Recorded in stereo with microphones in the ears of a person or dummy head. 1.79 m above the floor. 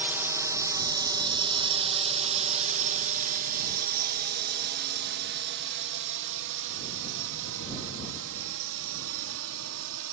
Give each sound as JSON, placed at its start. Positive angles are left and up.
{"t": 0.0, "sound": "a drone", "side_deg": -10}